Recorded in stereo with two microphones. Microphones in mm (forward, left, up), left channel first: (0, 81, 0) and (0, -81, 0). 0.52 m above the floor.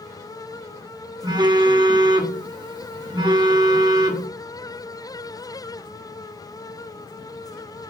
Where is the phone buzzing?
25° right (ahead or behind), 0.9 m.